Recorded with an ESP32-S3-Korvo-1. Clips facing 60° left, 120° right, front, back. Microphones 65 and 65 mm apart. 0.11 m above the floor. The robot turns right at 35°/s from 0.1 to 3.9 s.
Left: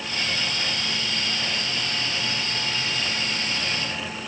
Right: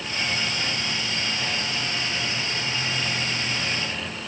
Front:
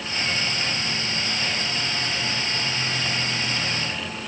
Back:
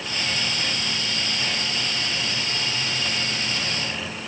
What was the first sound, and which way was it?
Only background noise.